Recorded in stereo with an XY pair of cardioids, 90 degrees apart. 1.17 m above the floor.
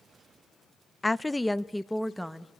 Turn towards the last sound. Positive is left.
turn(degrees=0)